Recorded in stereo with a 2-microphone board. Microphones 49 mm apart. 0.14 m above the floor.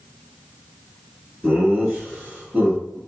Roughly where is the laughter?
Centre.